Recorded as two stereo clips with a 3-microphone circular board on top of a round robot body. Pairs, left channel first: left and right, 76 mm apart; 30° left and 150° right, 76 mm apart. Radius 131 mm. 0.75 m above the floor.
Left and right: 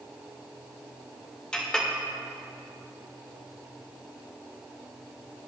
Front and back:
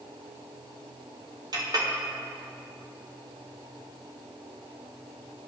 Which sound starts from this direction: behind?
A clink, at 1.5 s.